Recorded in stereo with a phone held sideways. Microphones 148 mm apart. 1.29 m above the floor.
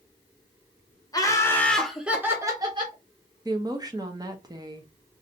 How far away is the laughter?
About 0.9 m.